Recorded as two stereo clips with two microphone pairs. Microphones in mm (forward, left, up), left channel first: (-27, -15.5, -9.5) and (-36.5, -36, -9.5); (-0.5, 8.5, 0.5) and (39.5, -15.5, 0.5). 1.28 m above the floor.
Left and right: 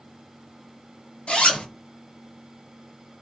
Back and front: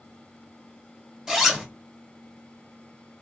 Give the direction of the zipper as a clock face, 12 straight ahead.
10 o'clock.